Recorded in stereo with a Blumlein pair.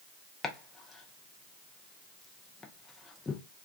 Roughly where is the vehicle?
No vehicle in this recording.